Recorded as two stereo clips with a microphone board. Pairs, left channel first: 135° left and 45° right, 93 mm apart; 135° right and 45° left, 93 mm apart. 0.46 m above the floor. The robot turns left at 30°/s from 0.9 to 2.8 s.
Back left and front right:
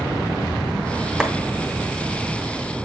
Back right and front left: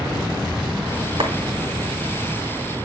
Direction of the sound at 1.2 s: 40° left.